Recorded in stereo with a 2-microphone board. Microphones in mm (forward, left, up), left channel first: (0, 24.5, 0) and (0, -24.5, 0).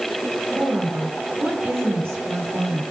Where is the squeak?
I don't hear a squeak.